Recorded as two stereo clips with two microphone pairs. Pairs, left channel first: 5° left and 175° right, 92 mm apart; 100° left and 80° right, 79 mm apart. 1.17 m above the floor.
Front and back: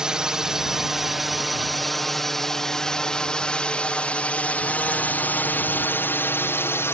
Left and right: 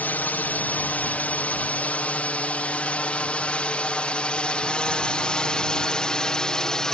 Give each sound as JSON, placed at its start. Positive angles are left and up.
{"t": 0.0, "sound": "a drone", "azimuth_deg": 115}